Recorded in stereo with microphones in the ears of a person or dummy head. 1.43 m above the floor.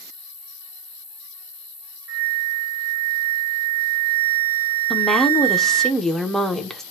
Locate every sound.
0.0 s an insect: 60° left (ahead or behind), 1.1 m
2.1 s a flute: 80° right, 0.9 m
4.9 s a woman speaking: centre (ahead or behind), 0.5 m